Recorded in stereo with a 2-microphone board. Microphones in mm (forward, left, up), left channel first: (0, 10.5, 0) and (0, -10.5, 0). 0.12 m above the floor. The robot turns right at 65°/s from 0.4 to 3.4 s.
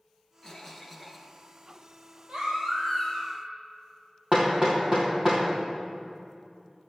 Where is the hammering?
30° right (ahead or behind), 3 m.